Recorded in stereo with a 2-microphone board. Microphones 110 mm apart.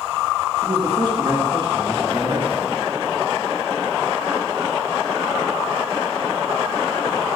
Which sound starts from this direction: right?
A man speaking, at 0.6 s.